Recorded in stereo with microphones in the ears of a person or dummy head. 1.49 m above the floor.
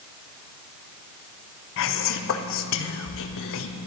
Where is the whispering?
65° left (ahead or behind), 0.6 m.